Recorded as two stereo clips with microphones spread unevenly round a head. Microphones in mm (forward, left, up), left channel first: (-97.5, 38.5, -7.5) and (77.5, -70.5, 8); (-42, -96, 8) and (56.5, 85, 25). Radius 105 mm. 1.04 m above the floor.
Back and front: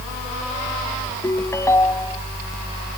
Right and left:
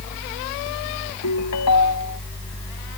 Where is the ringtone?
135° right.